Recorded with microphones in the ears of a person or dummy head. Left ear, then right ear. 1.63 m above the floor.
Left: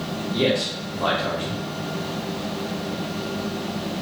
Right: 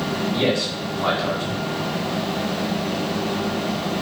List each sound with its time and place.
0.3 s a man speaking: 15° left (ahead or behind), 1.4 m